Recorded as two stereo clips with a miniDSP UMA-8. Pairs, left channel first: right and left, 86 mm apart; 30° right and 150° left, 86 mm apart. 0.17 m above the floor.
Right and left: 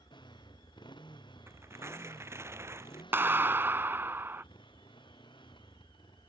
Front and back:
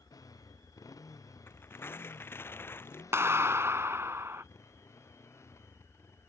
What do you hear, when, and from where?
0.0 s a motorcycle: 75° right; by 6.3 s 85° right
1.5 s tearing paper: 30° left
3.1 s a clap: 125° left